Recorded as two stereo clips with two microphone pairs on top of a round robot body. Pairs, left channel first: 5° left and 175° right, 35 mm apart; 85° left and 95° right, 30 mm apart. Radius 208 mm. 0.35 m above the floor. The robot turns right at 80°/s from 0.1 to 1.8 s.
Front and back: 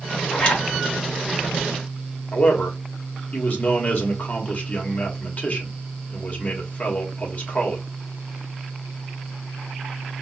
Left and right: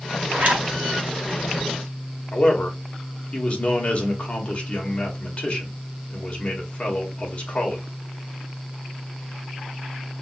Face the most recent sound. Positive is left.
turn(degrees=45)